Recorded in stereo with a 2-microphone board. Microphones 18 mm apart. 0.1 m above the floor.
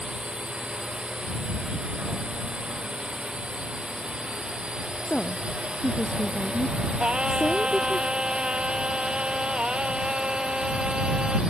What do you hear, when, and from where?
0.0 s a drone: 70° right (ahead or behind); by 11.5 s 75° right (ahead or behind)
5.0 s a woman speaking: 65° left (ahead or behind)
7.0 s singing: 65° right (ahead or behind)